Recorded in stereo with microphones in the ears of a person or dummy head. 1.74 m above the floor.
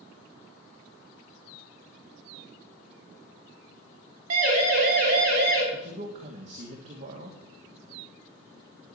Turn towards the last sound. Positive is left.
turn(degrees=-40)  # may be behind; listen again after turning